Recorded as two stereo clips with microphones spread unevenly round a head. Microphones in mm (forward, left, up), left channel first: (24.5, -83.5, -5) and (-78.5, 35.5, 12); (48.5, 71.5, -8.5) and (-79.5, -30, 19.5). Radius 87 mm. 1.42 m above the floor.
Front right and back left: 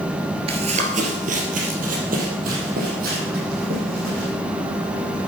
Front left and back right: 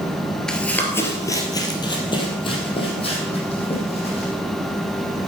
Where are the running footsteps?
135° left, 1.8 m; by 4.3 s 95° left, 5 m.